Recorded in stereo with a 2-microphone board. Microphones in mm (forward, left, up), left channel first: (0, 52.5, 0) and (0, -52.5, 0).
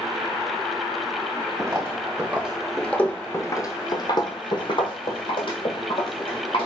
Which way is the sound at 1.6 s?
25° right (ahead or behind).